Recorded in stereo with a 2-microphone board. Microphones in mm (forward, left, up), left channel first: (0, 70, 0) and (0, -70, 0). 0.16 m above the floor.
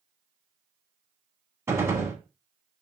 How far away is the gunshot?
About 0.6 m.